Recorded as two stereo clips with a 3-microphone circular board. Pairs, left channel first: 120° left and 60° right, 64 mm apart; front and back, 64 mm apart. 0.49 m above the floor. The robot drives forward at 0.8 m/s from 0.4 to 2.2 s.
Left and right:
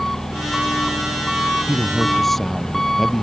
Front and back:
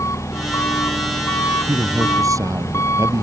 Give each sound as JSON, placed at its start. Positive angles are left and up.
{"t": 0.0, "sound": "an engine running", "azimuth_deg": 35}
{"t": 1.7, "sound": "a man speaking", "azimuth_deg": -155}